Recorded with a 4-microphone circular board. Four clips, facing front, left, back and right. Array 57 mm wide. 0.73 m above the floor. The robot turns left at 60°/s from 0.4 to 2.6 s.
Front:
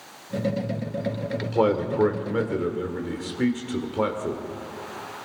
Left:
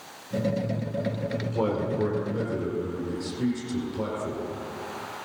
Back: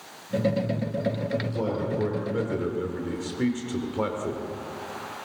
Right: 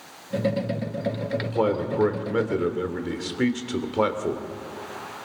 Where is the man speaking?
10° right, 2.5 m; by 4.4 s 80° right, 2.5 m.